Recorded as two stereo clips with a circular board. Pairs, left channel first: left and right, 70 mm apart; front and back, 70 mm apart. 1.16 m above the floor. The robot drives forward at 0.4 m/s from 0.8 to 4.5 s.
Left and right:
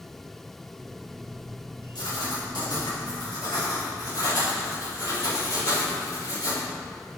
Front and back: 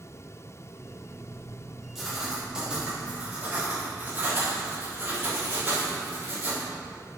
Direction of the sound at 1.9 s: 95° left.